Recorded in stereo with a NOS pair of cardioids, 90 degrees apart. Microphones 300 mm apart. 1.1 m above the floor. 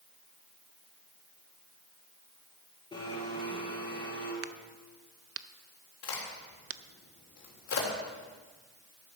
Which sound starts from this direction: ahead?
A blender, at 2.9 s.